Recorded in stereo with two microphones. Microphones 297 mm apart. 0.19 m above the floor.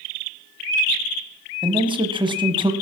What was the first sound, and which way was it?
A man speaking, 15° right (ahead or behind).